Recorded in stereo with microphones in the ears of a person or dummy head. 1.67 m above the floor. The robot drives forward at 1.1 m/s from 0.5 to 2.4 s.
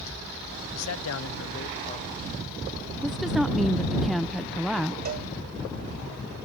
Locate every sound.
0.7 s a man speaking: 70° left (ahead or behind); by 2.2 s 35° left (ahead or behind)
3.0 s a woman speaking: centre (ahead or behind)
5.0 s a cowbell: 50° right (ahead or behind)